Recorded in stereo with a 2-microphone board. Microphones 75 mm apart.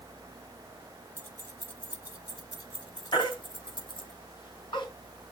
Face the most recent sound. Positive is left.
turn(degrees=75)  # may be behind; listen again after turning